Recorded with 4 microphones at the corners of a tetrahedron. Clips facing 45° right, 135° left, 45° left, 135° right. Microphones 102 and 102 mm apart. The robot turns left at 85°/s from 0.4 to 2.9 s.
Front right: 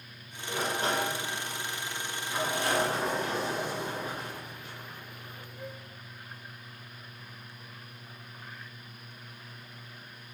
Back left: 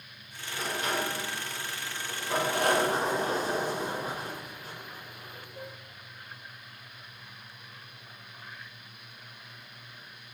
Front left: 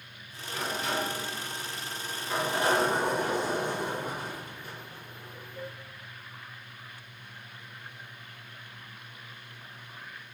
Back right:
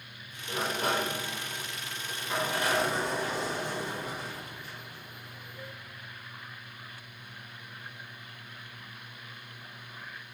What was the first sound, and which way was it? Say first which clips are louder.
A sliding door: front right 2 dB, back right 2 dB; 70° right.